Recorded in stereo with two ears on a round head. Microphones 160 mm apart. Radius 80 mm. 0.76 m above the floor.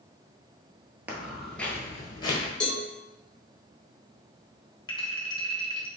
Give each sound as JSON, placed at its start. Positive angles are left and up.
{"t": 1.1, "sound": "footsteps", "side_deg": -10, "distance_m": 0.8}
{"t": 2.6, "sound": "a cowbell", "side_deg": 5, "distance_m": 0.9}
{"t": 4.9, "sound": "a clink", "side_deg": 25, "distance_m": 0.8}